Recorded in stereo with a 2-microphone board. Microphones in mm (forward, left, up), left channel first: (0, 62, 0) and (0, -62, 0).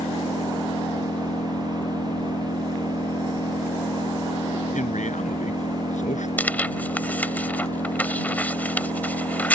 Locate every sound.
0.0 s an engine running: 80° left
4.7 s a man speaking: 80° left
6.4 s tearing paper: 15° left (ahead or behind)